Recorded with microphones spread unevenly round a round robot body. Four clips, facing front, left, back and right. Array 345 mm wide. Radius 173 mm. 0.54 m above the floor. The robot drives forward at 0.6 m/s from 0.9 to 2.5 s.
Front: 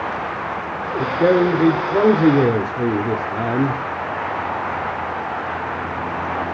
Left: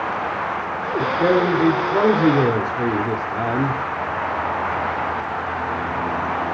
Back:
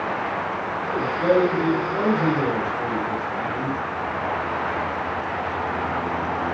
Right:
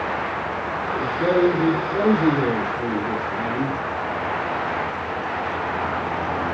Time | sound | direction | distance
1.0 | a man speaking | 15° left | 2.5 m